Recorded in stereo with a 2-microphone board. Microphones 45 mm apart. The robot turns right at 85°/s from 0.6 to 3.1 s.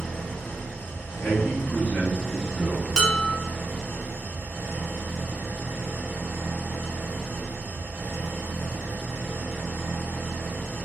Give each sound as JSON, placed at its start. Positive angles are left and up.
{"t": 0.0, "sound": "an engine running", "azimuth_deg": 35, "distance_m": 1.3}
{"t": 1.2, "sound": "a man speaking", "azimuth_deg": 55, "distance_m": 0.7}
{"t": 3.0, "sound": "dishes clattering", "side_deg": 15, "distance_m": 0.7}